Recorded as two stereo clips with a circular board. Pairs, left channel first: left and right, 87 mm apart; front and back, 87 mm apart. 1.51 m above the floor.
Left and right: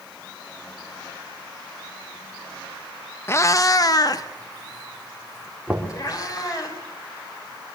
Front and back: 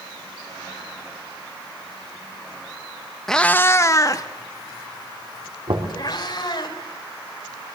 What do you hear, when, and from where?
3.3 s a cat meowing: 80° left, 0.7 m; by 6.7 s 40° left, 4.5 m
5.7 s knocking: 170° right, 3.5 m